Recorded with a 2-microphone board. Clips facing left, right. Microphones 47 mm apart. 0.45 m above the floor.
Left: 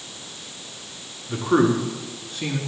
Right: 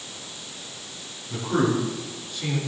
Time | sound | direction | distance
1.3 | a man speaking | 70° left (ahead or behind) | 4.5 m